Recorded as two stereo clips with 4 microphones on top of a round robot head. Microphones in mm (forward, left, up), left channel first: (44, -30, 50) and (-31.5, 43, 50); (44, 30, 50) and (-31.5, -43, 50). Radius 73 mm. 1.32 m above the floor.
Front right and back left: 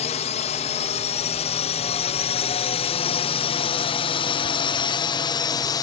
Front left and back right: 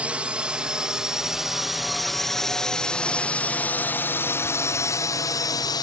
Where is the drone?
60° right; by 5.8 s straight ahead.